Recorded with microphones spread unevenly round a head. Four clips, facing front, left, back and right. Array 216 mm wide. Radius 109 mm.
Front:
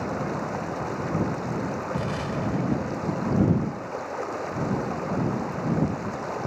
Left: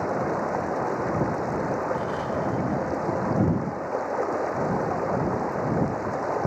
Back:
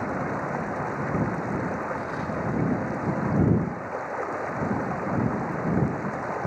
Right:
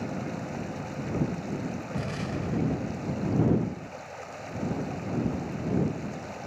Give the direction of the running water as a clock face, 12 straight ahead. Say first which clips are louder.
Left 9 dB, even; 9 o'clock.